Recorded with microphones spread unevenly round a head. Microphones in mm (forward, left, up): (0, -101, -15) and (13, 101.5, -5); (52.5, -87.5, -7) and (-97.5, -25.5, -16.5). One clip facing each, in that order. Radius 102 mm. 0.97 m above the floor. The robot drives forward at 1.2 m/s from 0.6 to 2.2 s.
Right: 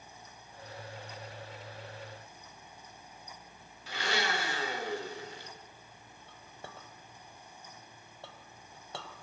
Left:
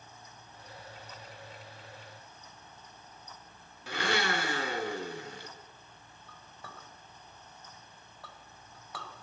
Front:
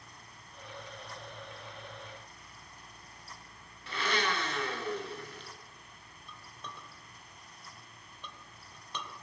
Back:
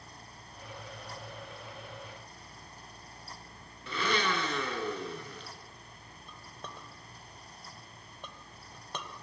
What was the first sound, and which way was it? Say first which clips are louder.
A blender: left 3 dB, back 2 dB; 130° left.